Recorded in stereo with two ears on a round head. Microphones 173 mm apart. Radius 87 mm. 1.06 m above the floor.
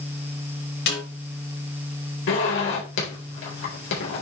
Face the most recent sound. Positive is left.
turn(degrees=70)  # may be behind; listen again after turning